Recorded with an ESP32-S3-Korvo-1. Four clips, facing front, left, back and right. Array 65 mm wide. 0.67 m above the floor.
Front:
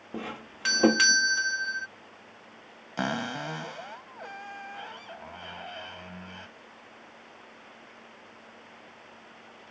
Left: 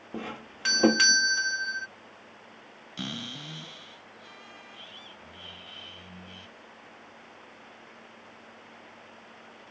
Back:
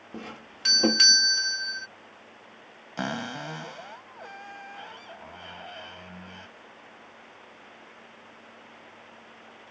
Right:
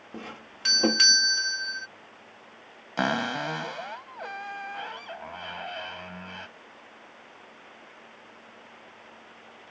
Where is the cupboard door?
85° right.